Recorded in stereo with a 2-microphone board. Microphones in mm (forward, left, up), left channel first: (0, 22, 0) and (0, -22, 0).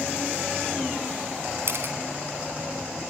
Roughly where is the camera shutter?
Right.